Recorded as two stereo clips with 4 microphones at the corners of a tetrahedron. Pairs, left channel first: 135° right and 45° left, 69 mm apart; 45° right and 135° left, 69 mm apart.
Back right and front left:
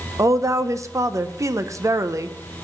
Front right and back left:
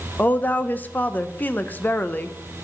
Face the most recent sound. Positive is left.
turn(degrees=15)